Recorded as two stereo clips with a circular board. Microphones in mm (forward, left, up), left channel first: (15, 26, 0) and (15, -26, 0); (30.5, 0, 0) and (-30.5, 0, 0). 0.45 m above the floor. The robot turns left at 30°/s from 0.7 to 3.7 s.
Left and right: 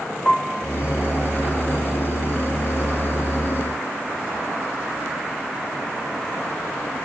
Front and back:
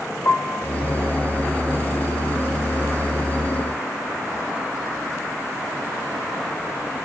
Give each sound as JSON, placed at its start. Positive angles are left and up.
{"t": 0.2, "sound": "a piano", "azimuth_deg": 10, "distance_m": 0.8}